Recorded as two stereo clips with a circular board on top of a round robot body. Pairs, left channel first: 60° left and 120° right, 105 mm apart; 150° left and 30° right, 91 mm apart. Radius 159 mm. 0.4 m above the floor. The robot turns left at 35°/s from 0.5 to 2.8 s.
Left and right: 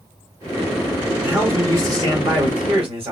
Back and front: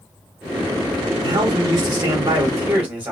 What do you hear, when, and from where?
1.2 s a man speaking: 45° right, 3 m; by 3.1 s 100° right, 3 m